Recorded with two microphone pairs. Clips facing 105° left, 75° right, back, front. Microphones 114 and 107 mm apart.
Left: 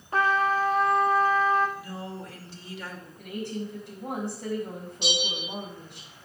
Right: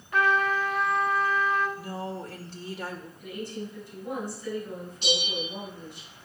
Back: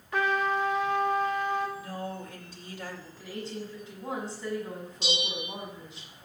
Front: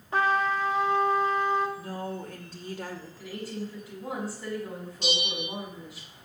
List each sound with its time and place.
0.1 s a trumpet: 55° left, 1.3 m
1.8 s a woman speaking: 35° right, 2.5 m
3.2 s a woman speaking: 80° left, 7 m
5.0 s a bell: 30° right, 1.3 m